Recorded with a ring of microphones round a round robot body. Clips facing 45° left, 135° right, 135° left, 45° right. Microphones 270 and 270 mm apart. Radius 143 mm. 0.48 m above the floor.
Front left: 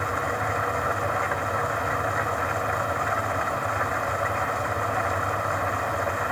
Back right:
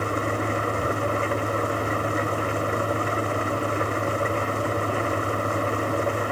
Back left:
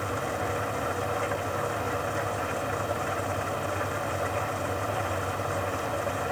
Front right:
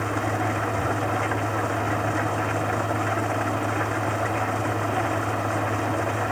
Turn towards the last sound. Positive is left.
turn(degrees=-75)